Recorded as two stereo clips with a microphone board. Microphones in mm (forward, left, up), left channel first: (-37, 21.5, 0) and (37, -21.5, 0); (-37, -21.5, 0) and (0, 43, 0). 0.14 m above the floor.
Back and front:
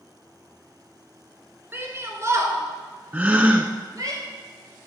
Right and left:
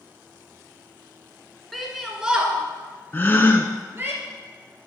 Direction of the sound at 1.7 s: 30° right.